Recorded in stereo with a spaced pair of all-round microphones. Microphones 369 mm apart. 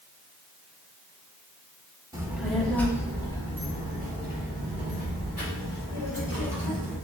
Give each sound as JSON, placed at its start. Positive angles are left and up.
{"t": 2.1, "sound": "a child speaking", "side_deg": -10, "distance_m": 1.0}